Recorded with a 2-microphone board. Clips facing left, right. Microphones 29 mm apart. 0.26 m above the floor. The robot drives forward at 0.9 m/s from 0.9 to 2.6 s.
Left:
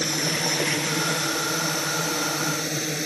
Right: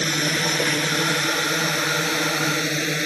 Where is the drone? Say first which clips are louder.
Right 3 dB; 40° right (ahead or behind); by 3.1 s 35° right (ahead or behind).